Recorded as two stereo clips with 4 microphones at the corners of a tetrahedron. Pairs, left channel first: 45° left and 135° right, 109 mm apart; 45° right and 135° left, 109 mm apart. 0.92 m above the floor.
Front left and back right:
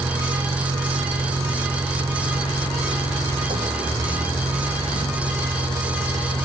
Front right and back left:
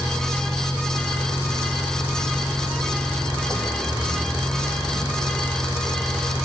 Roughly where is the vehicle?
Behind right.